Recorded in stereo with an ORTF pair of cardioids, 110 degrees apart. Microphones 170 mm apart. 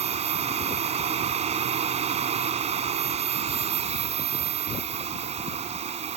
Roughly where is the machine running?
Ahead right.